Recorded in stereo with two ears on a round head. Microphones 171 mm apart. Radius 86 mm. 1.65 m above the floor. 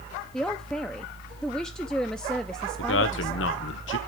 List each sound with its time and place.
0.3 s a man speaking: 5° left (ahead or behind), 0.7 m
2.8 s a man speaking: 75° left (ahead or behind), 1.3 m